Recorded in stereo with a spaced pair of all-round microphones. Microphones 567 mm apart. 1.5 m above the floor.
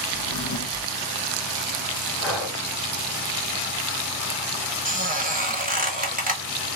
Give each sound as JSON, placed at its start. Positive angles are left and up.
{"t": 0.1, "sound": "a drawer", "side_deg": 25, "distance_m": 2.0}
{"t": 2.2, "sound": "breathing", "side_deg": 50, "distance_m": 1.8}
{"t": 4.8, "sound": "a squeak", "side_deg": -15, "distance_m": 1.0}